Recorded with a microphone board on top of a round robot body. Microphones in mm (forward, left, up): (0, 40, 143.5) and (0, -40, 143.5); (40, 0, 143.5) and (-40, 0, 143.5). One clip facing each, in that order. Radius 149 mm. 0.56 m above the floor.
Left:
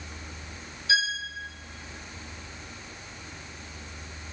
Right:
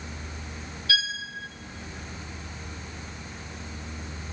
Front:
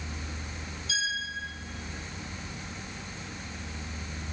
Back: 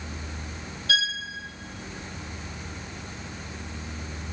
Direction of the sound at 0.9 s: 160° left.